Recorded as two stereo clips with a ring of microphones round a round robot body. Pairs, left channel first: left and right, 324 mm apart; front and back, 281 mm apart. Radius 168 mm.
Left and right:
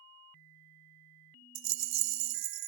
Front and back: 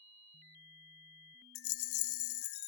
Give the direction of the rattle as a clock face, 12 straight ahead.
2 o'clock.